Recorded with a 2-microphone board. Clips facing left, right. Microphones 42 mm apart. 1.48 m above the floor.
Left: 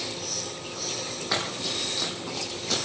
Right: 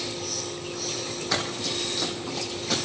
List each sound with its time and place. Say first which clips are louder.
1.3 s running footsteps: even; 15° left (ahead or behind), 4 m; by 2.9 s 5° right (ahead or behind), 5 m